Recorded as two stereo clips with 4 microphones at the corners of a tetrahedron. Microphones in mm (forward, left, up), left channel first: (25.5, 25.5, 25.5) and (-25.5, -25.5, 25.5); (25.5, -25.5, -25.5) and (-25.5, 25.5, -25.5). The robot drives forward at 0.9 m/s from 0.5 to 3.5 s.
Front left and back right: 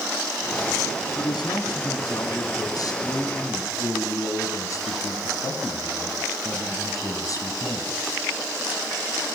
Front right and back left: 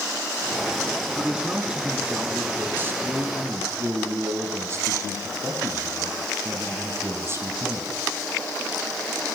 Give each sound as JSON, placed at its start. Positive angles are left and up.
{"t": 1.2, "sound": "a man speaking", "azimuth_deg": 55, "distance_m": 5.0}